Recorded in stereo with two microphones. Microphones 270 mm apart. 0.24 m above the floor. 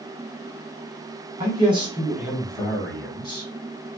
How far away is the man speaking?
About 1.5 m.